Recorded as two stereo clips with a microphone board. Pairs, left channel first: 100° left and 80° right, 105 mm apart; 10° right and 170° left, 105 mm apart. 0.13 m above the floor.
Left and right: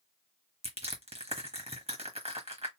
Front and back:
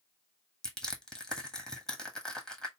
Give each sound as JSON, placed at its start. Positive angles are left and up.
{"t": 0.6, "sound": "crushing", "azimuth_deg": -95, "distance_m": 1.2}